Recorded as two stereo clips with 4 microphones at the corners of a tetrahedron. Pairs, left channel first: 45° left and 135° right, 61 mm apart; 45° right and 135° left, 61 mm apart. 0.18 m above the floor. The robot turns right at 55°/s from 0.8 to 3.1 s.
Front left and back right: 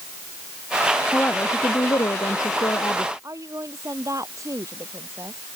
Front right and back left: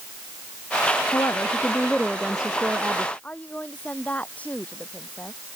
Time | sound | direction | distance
1.1 | a woman speaking | 15° right | ?
3.2 | a woman speaking | 110° right | ?